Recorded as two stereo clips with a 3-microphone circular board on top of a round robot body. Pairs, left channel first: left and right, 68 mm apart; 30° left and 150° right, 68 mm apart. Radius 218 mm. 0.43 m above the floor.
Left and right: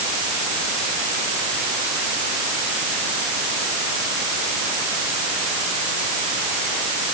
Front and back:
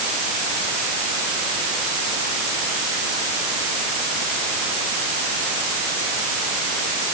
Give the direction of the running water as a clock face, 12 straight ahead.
I don't hear running water.